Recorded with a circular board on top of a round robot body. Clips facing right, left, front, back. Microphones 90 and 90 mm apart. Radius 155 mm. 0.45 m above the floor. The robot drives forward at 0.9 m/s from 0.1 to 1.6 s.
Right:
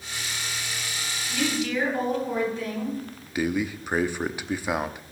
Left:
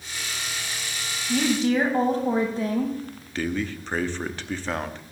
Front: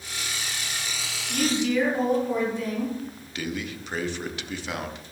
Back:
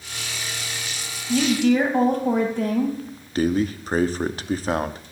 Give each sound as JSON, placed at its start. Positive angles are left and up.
{"t": 1.3, "sound": "a woman speaking", "azimuth_deg": 145, "distance_m": 3.0}
{"t": 3.4, "sound": "a man speaking", "azimuth_deg": -160, "distance_m": 1.0}